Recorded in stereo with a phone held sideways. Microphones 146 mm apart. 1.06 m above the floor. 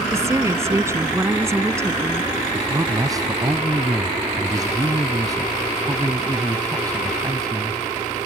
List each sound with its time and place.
0.1 s a woman speaking: 20° right (ahead or behind)
2.5 s a man speaking: 25° right (ahead or behind)